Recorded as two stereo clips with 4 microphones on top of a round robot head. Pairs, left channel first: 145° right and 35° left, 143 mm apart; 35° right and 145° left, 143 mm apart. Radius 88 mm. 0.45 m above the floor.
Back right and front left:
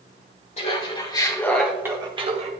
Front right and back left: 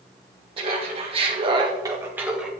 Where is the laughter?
175° right, 2 m; by 2.5 s 60° left, 1.8 m.